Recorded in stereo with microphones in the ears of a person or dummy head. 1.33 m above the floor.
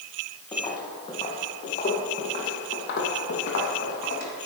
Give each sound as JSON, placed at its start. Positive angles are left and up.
{"t": 0.5, "sound": "footsteps", "side_deg": 20, "distance_m": 2.0}